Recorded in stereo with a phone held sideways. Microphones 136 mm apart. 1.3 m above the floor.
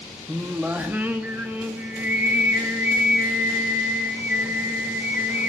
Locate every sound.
0.3 s singing: 15° right (ahead or behind), 1.9 m